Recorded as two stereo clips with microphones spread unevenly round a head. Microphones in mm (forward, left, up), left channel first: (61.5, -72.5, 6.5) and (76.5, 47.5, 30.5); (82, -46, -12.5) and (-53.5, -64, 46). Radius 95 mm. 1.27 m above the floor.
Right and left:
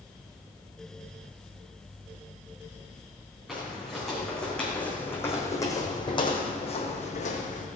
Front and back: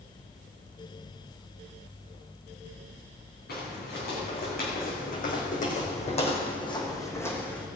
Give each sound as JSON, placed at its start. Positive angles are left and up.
{"t": 3.5, "sound": "footsteps", "azimuth_deg": 0, "distance_m": 5.0}